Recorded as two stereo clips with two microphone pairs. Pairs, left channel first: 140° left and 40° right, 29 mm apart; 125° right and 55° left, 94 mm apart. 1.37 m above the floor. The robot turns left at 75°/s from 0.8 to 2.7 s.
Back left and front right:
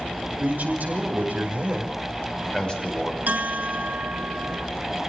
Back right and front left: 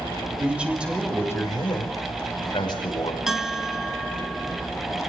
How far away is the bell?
About 1.5 m.